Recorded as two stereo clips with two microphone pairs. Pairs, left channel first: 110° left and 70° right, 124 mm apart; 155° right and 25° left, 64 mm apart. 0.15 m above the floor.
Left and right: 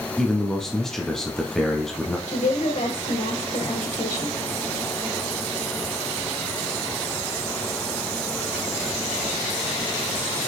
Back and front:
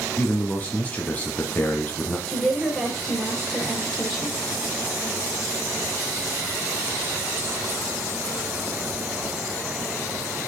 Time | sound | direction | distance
0.2 | a man speaking | 160° right | 1.1 m
2.3 | a woman speaking | 115° left | 3 m